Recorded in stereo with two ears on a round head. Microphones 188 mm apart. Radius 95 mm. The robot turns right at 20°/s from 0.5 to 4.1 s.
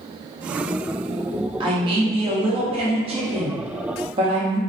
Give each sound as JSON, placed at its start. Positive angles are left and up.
{"t": 1.6, "sound": "a man speaking", "side_deg": -25, "distance_m": 0.6}